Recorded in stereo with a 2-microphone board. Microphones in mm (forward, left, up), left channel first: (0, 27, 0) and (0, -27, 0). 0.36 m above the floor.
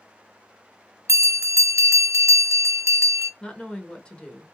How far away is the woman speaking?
About 0.8 m.